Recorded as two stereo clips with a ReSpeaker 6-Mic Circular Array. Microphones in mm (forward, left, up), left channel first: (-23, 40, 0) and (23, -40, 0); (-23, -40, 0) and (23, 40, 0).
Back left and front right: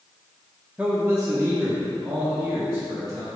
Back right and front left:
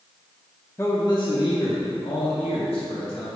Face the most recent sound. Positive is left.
turn(degrees=-105)